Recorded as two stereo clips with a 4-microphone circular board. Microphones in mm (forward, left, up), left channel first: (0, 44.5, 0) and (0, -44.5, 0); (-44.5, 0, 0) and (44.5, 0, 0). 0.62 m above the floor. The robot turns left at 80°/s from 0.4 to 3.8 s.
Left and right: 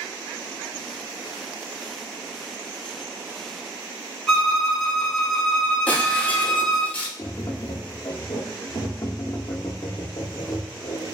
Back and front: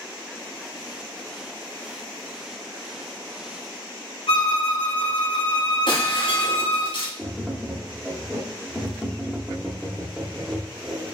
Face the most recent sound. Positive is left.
turn(degrees=70)